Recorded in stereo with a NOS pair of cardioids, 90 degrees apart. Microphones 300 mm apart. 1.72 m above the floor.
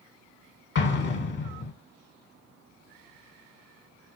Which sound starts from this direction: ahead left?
An explosion, at 0.8 s.